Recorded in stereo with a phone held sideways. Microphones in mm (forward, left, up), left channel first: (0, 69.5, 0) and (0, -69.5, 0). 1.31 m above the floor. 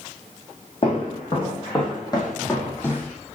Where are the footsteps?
40° left (ahead or behind), 4.5 m; by 3.1 s 10° left (ahead or behind), 3 m.